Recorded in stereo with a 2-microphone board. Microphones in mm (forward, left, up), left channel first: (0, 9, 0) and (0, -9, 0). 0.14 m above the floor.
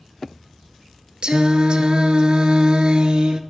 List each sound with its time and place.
1.2 s singing: 60° right (ahead or behind), 0.8 m